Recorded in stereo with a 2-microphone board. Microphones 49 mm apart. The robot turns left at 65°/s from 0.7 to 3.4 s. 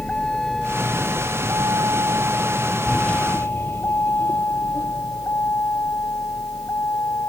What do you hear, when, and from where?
0.0 s a vehicle: 25° left (ahead or behind); by 7.3 s 65° left (ahead or behind)